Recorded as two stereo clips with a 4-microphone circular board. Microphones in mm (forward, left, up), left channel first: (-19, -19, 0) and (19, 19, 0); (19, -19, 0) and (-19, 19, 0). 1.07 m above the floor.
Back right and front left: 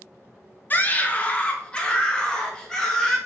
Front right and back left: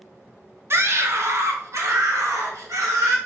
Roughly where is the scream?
Behind.